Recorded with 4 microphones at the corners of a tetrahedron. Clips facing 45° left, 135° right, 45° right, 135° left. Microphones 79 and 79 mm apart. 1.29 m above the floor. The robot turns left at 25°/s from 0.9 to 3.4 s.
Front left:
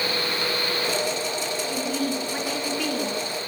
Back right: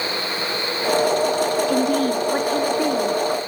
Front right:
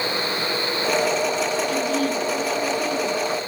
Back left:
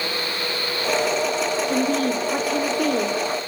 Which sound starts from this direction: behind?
A woman speaking, at 1.7 s.